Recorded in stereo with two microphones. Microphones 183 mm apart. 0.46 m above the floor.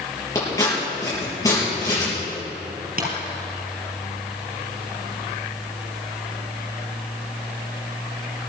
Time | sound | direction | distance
0.3 | scissors | 20° left (ahead or behind) | 7 m
3.0 | tapping | 55° right (ahead or behind) | 4 m